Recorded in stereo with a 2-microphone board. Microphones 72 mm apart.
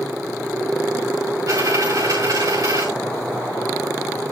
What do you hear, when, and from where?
1.5 s a dropped coin: 55° right (ahead or behind), 6 m